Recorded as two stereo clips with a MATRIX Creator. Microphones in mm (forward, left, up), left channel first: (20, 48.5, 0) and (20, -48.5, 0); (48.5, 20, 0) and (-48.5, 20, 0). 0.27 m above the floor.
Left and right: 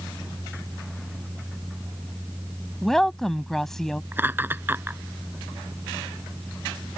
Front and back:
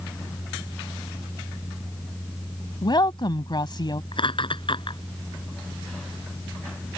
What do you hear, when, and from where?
2.8 s a woman speaking: 5° left
4.1 s laughter: 25° right